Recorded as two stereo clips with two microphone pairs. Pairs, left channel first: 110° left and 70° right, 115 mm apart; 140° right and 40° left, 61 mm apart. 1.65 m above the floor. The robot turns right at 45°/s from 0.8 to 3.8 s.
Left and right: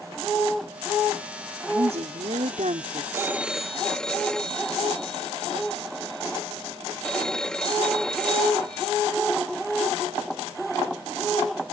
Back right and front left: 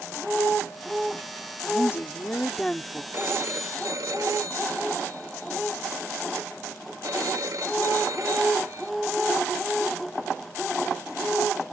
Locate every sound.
1.7 s a woman speaking: 105° right; by 3.0 s 40° right
3.1 s a phone ringing: 5° right; by 8.9 s 25° left